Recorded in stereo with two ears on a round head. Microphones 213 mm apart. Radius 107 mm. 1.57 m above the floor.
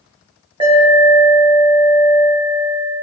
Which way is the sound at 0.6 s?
25° right (ahead or behind).